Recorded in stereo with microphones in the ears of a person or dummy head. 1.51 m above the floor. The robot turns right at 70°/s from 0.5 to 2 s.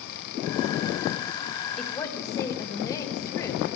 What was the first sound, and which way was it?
A woman speaking, centre (ahead or behind).